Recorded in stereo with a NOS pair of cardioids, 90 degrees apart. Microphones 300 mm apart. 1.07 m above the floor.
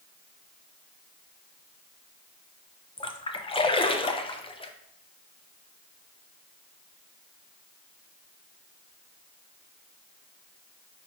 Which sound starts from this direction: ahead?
A splash, at 3.0 s.